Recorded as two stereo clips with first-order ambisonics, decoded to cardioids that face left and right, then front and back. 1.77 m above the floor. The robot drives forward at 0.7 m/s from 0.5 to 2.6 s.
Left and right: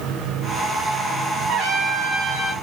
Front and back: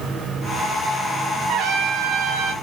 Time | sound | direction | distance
1.5 | a trumpet | 150° right | 1.8 m